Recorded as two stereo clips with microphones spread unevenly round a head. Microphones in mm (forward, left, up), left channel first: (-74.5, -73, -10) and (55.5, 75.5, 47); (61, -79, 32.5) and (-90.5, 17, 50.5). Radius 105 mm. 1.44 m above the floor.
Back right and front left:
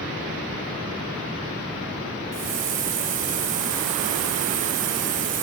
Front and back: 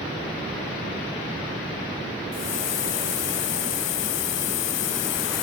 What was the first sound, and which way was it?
A hiss, straight ahead.